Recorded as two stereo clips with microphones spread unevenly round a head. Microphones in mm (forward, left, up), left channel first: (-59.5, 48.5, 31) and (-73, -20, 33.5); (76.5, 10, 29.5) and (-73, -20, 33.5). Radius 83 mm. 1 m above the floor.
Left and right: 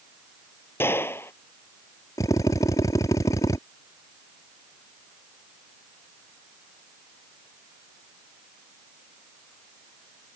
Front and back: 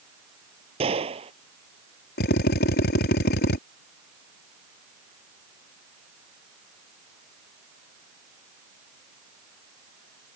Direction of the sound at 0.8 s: 135° left.